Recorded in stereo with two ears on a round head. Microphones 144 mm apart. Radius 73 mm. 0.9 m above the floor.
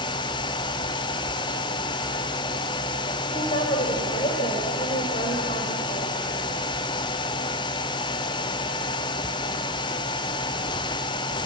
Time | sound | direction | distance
3.3 | a woman speaking | 45° left (ahead or behind) | 4.5 m